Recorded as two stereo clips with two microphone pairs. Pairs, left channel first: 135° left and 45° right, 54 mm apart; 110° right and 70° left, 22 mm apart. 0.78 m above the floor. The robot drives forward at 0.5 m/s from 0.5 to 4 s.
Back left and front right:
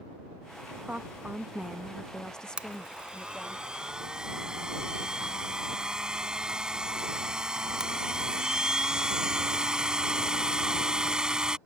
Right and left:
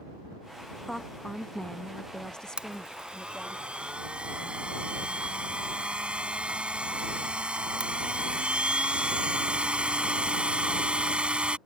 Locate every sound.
0.8 s a woman speaking: 45° right; by 3.6 s 165° right
2.6 s a blender: 25° left; by 11.6 s 30° left